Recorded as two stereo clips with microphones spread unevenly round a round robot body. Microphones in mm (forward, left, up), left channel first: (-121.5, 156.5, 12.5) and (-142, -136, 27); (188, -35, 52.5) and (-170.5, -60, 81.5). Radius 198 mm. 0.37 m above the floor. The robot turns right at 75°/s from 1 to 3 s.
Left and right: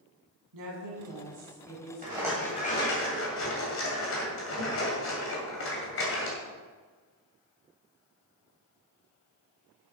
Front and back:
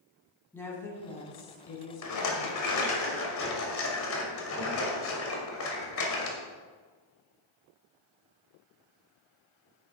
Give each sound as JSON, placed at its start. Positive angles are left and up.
{"t": 0.5, "sound": "a woman speaking", "azimuth_deg": -80, "distance_m": 3.5}
{"t": 2.0, "sound": "a rattle", "azimuth_deg": -25, "distance_m": 2.0}